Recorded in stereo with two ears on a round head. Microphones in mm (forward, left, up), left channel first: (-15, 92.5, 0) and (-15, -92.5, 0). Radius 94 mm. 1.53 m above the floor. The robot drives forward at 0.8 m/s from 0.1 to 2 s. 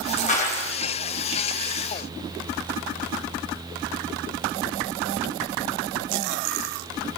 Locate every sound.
0.3 s a clap: 40° left (ahead or behind), 6 m; by 0.7 s 35° left (ahead or behind), 6.5 m